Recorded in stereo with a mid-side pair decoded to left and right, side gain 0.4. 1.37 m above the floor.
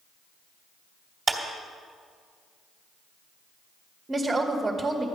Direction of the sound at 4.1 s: 30° right.